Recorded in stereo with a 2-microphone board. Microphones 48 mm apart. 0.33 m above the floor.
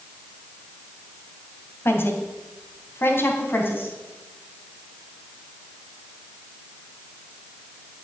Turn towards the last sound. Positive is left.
turn(degrees=50)  # may be behind; listen again after turning